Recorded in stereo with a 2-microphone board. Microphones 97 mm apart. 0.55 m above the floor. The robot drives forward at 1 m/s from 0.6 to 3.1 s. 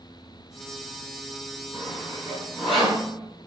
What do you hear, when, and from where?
1.7 s sawing: 5° right (ahead or behind), 4 m; by 3.0 s centre (ahead or behind), 5.5 m